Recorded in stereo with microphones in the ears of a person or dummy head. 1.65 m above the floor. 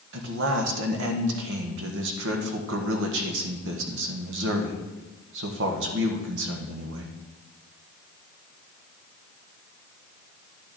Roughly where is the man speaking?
Right.